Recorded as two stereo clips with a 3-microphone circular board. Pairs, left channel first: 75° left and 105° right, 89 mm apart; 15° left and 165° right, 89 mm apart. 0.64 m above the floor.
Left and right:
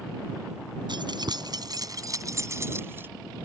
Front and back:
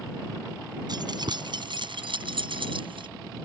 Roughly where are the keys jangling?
Behind right.